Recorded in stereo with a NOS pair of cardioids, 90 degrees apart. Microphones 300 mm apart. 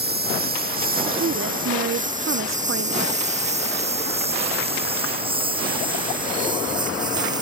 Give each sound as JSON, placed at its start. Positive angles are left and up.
{"t": 0.0, "sound": "a lawn mower", "azimuth_deg": -35}
{"t": 1.2, "sound": "a woman speaking", "azimuth_deg": -45}